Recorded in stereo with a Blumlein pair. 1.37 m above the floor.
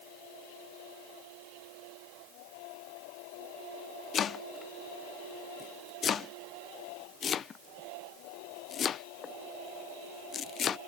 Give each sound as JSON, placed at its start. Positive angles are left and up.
{"t": 4.1, "sound": "chopping", "azimuth_deg": 25}